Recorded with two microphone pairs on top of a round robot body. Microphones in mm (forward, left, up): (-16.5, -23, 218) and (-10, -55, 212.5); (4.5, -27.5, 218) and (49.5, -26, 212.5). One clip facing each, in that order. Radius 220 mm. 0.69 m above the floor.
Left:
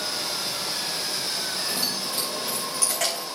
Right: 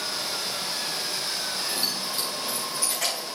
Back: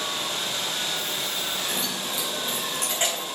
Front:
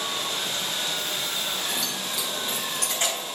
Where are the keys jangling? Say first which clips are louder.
Left 1 dB, back 1 dB; 115° left, 2.5 m; by 3.4 s 110° left, 3.5 m.